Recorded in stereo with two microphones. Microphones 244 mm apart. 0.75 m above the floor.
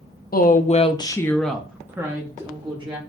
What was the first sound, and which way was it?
A woman speaking, 40° left (ahead or behind).